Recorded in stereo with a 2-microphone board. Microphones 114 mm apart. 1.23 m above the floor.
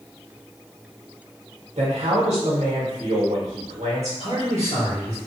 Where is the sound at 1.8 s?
75° right (ahead or behind), 1.2 m.